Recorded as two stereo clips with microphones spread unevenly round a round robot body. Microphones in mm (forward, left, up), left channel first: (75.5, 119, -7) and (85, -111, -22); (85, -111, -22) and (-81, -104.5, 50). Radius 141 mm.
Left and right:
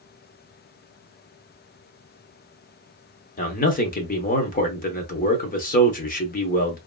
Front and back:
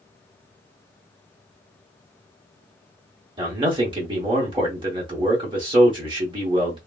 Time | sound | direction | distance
3.4 | a man speaking | 95° left | 0.8 m